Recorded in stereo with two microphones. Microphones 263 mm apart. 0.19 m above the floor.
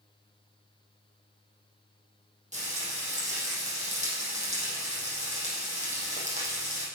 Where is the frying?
25° right (ahead or behind), 7 m.